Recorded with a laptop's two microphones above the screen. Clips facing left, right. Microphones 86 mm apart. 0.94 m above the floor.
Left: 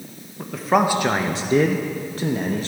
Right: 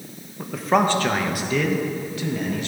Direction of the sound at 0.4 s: 5° right (ahead or behind).